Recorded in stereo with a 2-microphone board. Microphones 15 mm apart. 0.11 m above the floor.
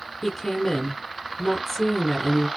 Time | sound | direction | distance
0.2 | a woman speaking | 5° left (ahead or behind) | 1.1 m